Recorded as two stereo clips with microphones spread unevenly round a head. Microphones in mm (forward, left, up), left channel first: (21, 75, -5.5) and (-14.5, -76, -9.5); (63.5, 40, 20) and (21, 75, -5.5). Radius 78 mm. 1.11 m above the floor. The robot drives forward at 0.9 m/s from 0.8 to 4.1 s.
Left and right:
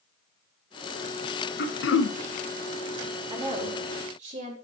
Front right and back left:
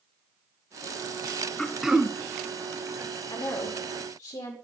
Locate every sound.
1.6 s throat clearing: 45° left, 0.7 m; by 2.2 s 95° left, 0.5 m
3.3 s a woman speaking: 45° right, 2.5 m; by 4.5 s 60° right, 2 m